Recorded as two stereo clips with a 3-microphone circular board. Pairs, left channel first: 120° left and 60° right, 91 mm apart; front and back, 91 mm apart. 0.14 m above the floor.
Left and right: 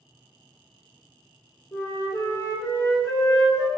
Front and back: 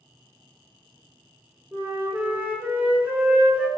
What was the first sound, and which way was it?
A flute, 135° left.